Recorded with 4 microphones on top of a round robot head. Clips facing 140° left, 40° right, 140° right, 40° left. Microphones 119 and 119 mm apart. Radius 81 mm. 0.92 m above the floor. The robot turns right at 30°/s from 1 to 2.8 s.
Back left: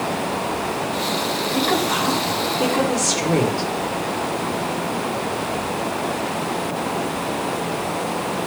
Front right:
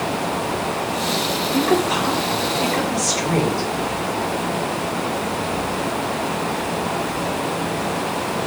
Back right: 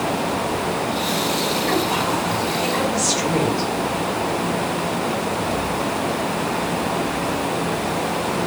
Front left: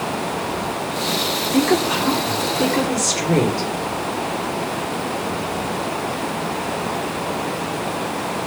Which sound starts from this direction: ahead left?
A woman speaking, at 1.5 s.